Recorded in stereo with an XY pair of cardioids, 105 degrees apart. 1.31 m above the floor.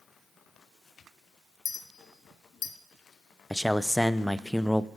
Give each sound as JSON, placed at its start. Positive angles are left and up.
{"t": 1.6, "sound": "a clink", "azimuth_deg": 55, "distance_m": 1.4}
{"t": 3.5, "sound": "a man speaking", "azimuth_deg": 5, "distance_m": 0.5}